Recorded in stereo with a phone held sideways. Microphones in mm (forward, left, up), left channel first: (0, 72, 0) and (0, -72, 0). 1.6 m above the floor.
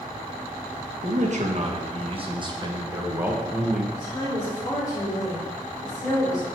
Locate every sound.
1.0 s a man speaking: 60° right (ahead or behind), 1.7 m; by 3.8 s centre (ahead or behind), 1.3 m
3.9 s a woman speaking: 30° left (ahead or behind), 4 m